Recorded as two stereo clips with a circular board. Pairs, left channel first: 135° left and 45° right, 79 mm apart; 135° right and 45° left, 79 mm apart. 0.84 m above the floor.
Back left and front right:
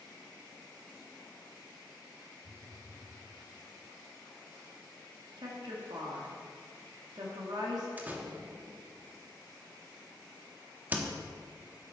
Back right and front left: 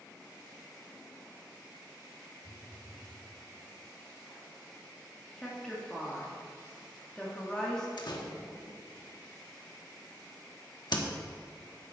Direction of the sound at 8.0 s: 115° right.